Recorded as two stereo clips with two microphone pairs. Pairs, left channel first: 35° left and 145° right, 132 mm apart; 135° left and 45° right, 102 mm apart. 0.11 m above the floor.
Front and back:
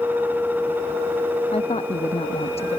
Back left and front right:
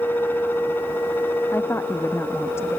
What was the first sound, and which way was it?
A woman speaking, 70° left.